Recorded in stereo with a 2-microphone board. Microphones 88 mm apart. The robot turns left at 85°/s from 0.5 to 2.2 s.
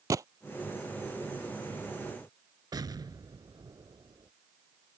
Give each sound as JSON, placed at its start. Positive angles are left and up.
{"t": 0.1, "sound": "a gunshot", "side_deg": -40}
{"t": 2.7, "sound": "an explosion", "side_deg": -50}